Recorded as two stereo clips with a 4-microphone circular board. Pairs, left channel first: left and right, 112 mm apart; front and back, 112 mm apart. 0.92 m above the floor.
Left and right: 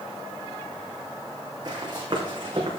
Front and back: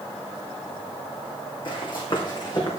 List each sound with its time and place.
1.6 s running footsteps: 40° right, 3.5 m; by 2.8 s 50° right, 4 m